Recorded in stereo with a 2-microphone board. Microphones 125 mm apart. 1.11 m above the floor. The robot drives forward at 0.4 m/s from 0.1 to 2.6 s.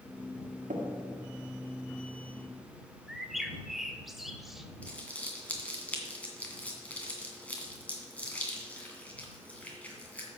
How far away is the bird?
About 0.9 m.